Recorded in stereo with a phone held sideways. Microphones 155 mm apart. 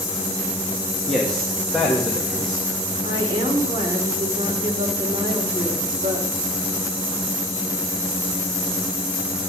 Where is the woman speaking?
30° right (ahead or behind), 2.5 m.